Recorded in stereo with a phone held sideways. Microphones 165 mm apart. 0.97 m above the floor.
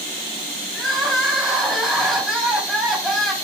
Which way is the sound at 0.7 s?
Centre (ahead or behind).